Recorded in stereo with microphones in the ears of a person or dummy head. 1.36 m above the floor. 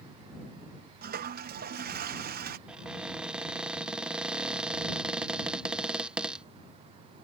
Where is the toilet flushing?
40° right (ahead or behind).